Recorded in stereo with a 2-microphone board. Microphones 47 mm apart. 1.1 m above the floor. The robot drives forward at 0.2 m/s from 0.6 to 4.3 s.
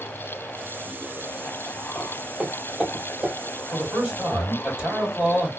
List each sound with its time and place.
1.9 s footsteps: 5° left (ahead or behind), 1.7 m; by 3.3 s 10° right (ahead or behind), 2.5 m
3.7 s a man speaking: 15° right (ahead or behind), 2.5 m